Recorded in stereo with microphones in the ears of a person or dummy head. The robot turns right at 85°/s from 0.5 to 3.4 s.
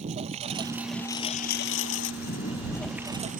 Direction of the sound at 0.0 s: 35° right (ahead or behind).